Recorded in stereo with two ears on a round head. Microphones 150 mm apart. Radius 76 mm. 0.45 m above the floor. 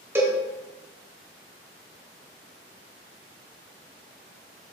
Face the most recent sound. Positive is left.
turn(degrees=-15)  # may be behind; listen again after turning